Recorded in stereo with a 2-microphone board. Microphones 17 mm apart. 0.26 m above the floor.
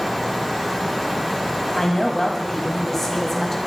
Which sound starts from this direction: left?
A woman speaking, at 1.8 s.